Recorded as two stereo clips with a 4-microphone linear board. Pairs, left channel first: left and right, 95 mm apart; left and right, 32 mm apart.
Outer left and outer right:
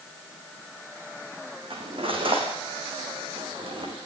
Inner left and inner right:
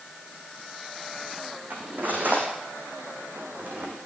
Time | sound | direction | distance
1.7 | cutlery clinking | 70° right (ahead or behind) | 5.5 m